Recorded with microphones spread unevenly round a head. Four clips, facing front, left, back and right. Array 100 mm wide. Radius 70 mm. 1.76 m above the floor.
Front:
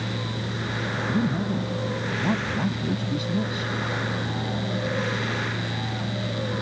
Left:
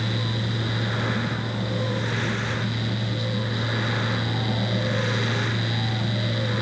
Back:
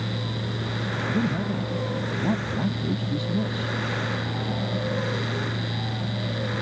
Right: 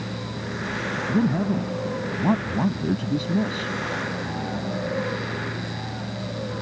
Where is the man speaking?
110° right.